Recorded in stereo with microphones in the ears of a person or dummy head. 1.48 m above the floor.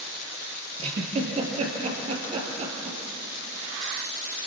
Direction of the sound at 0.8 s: 35° right (ahead or behind).